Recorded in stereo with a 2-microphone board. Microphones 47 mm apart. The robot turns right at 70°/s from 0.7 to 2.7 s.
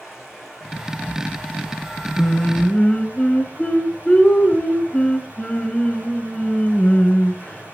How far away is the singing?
About 1.7 m.